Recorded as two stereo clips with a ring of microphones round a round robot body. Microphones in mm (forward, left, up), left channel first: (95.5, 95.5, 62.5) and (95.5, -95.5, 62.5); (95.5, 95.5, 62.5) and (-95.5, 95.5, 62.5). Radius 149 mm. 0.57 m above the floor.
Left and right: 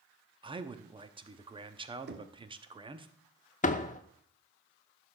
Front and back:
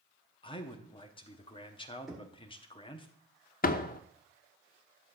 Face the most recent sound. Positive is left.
turn(degrees=40)